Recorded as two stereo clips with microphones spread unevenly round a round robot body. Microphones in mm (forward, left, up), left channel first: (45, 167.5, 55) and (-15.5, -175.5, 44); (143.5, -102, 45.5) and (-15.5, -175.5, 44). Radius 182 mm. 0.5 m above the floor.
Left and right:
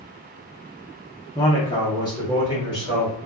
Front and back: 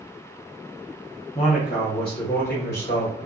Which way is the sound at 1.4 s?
10° left.